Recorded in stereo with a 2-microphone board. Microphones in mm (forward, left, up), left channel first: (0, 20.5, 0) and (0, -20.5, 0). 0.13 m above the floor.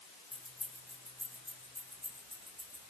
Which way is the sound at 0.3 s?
5° left (ahead or behind).